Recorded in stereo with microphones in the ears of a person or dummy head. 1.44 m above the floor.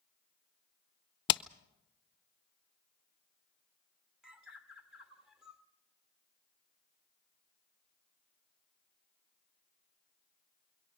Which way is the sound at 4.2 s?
5° right (ahead or behind).